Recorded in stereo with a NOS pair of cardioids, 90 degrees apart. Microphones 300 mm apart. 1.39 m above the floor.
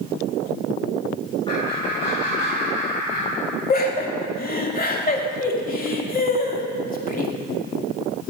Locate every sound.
1.5 s laughter: 20° left, 4 m; by 3.3 s 35° left, 4 m
3.7 s laughter: 30° left, 3 m